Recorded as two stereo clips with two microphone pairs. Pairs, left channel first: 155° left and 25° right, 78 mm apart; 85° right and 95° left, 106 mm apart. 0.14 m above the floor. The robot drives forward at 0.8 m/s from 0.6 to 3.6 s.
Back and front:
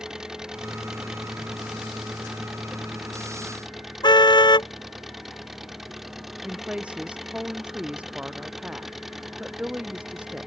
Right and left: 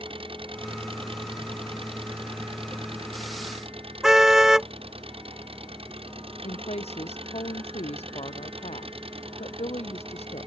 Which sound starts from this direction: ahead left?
An engine running, at 0.0 s.